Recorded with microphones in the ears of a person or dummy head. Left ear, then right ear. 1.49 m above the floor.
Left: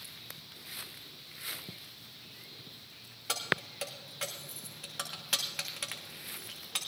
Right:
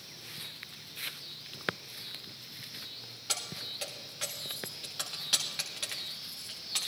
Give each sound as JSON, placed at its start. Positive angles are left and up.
{"t": 3.3, "sound": "keys jangling", "side_deg": 20, "distance_m": 1.3}